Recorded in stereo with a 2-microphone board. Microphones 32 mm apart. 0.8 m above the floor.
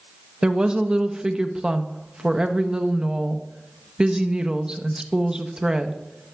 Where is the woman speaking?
25° right (ahead or behind), 0.6 m.